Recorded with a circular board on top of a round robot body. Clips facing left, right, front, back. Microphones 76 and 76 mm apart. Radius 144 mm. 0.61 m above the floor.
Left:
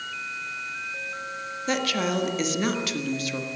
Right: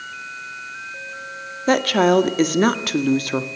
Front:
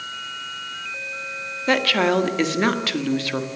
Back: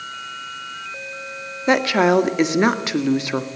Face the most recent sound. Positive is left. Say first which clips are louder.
# right 10 dB, back 3 dB
turn(degrees=-110)